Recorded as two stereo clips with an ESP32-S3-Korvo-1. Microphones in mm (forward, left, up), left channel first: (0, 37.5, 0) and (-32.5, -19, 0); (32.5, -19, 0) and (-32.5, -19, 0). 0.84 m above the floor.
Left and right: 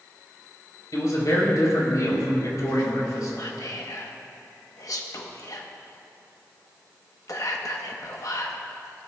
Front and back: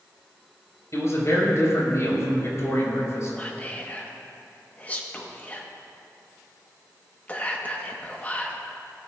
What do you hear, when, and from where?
0.9 s a man speaking: 40° left, 3.5 m
3.4 s whispering: 60° left, 0.9 m